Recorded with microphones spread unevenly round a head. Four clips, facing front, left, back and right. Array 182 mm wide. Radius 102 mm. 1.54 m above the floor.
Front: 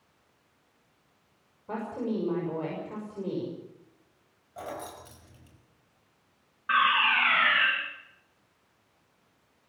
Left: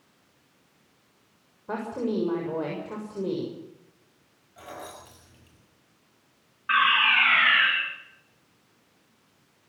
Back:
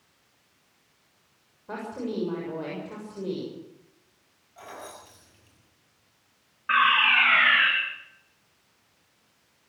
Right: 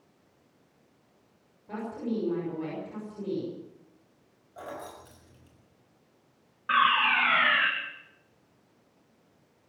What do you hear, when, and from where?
1.7 s a woman speaking: 95° left, 7 m
4.6 s keys jangling: 20° right, 5 m
6.7 s a fire alarm: 95° right, 3.5 m